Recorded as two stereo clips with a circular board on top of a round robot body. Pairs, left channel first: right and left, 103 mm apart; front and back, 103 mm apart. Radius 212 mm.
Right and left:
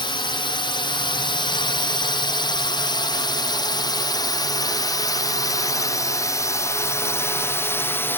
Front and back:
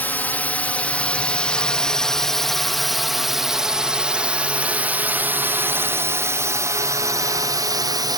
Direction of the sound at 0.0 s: 70° right.